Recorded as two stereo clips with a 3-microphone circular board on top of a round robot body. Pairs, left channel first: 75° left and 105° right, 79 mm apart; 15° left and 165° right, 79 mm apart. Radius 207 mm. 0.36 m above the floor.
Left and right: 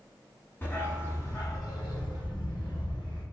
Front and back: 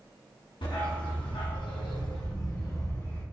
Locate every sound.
0.6 s a dog barking: 10° left, 1.7 m; by 3.2 s 80° left, 1.5 m